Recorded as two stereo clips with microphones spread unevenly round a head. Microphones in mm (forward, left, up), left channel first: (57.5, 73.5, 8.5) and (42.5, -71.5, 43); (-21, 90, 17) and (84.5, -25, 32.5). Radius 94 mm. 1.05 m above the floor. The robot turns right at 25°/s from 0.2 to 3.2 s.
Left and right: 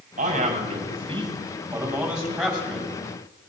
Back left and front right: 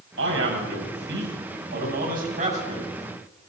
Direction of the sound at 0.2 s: 60° right.